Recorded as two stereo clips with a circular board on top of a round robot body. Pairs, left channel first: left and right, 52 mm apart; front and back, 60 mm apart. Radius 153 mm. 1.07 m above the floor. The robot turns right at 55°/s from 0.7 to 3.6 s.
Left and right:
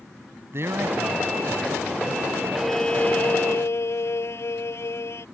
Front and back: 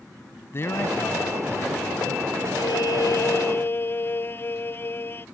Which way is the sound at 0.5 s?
50° right.